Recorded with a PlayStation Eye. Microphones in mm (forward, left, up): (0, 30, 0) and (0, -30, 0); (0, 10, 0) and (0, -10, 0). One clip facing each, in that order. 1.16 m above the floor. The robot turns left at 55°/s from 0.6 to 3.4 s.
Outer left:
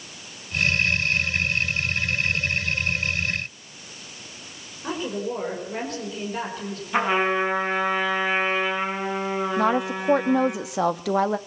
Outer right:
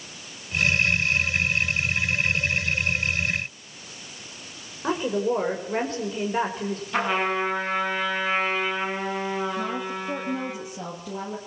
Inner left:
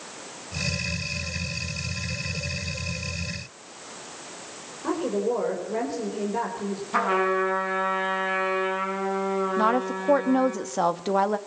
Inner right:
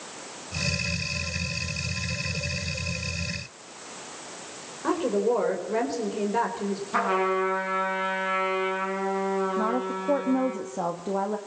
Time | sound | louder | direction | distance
4.8 | a woman speaking | outer right 4 dB, inner right 2 dB | 25° right (ahead or behind) | 4.5 m
6.9 | a trumpet | outer left 3 dB, inner left 2 dB | 10° left (ahead or behind) | 9 m
9.6 | a woman speaking | outer left 7 dB, inner left 4 dB | 85° left | 1.5 m